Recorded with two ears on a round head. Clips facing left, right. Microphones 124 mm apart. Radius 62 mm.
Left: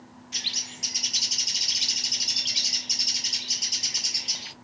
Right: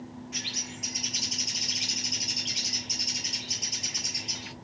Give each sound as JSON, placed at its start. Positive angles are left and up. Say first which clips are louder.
{"t": 0.3, "sound": "a bird", "louder": "right 4 dB", "side_deg": 40, "distance_m": 0.8}